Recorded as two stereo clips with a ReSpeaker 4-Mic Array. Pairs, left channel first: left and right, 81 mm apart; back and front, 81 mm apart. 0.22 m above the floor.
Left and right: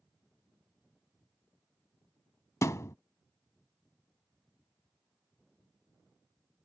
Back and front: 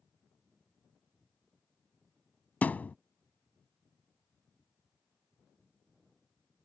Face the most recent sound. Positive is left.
turn(degrees=120)